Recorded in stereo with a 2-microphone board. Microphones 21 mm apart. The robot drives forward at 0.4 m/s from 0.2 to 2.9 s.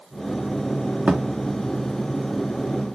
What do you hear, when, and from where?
1.1 s a thud: 60° right (ahead or behind), 3 m; by 1.2 s 65° right (ahead or behind), 3 m